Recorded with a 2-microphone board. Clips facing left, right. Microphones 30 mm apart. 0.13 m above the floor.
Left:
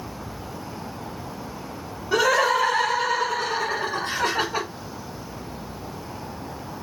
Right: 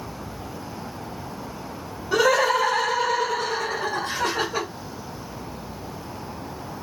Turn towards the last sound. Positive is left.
turn(degrees=25)  # may be behind; listen again after turning